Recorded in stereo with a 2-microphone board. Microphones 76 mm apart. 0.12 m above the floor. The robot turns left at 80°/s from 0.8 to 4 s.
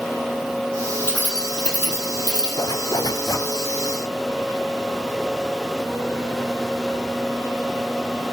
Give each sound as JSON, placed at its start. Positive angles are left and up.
{"t": 1.0, "sound": "keys jangling", "side_deg": 35, "distance_m": 2.5}
{"t": 2.6, "sound": "a zipper", "azimuth_deg": 115, "distance_m": 0.8}